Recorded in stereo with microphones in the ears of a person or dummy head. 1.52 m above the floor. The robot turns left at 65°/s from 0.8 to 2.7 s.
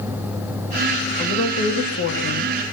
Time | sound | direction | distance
1.2 | a woman speaking | 160° left | 2.5 m